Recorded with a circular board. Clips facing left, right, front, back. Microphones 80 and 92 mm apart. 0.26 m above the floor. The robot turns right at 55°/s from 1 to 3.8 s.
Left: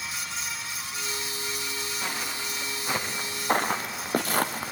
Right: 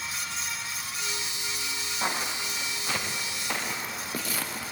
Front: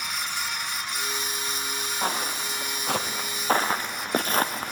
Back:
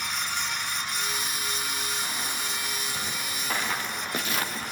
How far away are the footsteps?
About 3.5 m.